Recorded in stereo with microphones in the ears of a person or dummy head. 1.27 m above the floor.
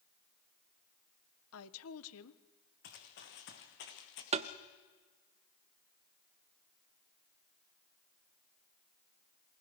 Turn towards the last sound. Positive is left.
turn(degrees=-35)  # may be behind; listen again after turning